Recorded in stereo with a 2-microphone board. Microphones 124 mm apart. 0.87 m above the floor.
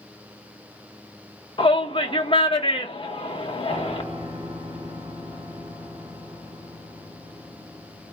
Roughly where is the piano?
Right.